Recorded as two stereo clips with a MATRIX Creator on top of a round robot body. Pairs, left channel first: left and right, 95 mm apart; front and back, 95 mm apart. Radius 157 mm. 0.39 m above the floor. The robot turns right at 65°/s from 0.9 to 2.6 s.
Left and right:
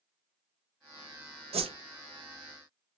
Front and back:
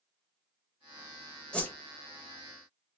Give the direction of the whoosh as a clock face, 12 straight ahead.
3 o'clock.